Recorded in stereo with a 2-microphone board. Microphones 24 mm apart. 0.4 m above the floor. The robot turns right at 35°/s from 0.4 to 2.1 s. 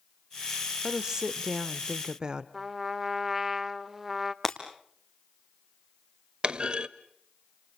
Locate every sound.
0.8 s a woman speaking: 20° right (ahead or behind), 0.9 m; by 2.4 s 30° right (ahead or behind), 0.9 m
2.5 s a trumpet: 10° right (ahead or behind), 0.9 m
4.4 s breaking glass: 15° left (ahead or behind), 3 m
6.4 s a clunk: 40° right (ahead or behind), 0.8 m